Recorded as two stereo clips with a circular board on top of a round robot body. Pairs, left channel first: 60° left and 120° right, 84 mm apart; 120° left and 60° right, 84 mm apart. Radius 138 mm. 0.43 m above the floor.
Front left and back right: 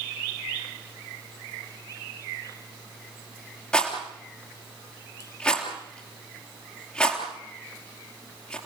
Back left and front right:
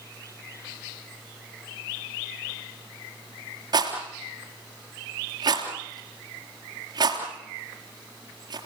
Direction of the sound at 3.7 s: 20° right.